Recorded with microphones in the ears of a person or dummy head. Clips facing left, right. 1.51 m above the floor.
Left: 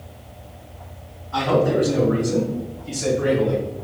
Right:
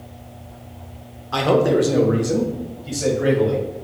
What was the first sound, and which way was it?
A man speaking, 75° right (ahead or behind).